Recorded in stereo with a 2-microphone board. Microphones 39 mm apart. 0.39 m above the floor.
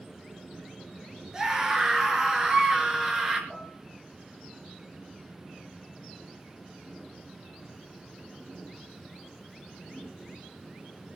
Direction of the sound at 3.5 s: 15° right (ahead or behind).